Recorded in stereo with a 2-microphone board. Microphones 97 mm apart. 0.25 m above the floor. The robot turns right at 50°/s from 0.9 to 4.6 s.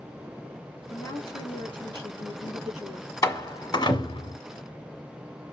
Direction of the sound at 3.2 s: 35° left (ahead or behind).